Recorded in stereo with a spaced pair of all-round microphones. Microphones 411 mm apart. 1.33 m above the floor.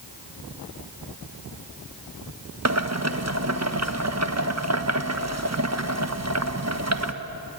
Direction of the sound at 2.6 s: 35° right (ahead or behind).